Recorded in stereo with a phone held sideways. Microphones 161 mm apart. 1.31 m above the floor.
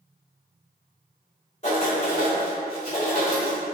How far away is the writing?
About 2.0 m.